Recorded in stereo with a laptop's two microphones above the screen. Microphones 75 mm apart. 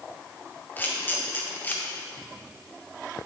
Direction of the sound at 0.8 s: 25° left (ahead or behind).